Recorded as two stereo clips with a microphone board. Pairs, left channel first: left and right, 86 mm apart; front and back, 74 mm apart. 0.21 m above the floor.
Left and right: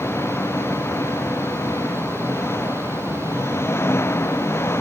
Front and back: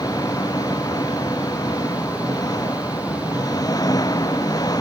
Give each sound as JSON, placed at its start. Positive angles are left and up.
{"t": 0.0, "sound": "an engine running", "azimuth_deg": 30}